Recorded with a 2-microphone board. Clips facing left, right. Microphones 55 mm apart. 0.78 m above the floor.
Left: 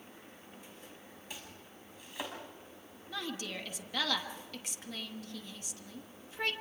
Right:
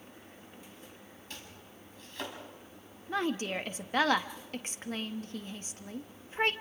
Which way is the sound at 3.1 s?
40° right (ahead or behind).